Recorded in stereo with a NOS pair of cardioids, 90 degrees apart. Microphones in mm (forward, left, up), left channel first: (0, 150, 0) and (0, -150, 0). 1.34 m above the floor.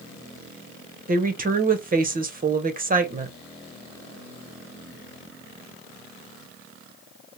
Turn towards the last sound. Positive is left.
turn(degrees=-30)